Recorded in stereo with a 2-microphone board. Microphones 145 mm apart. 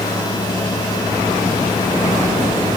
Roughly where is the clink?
I don't hear a clink.